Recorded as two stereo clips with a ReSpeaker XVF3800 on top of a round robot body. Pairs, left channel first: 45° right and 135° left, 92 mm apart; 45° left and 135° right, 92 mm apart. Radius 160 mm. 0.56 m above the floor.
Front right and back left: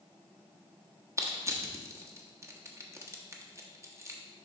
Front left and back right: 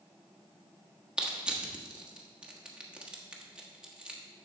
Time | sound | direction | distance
1.2 | crushing | 150° left | 1.3 m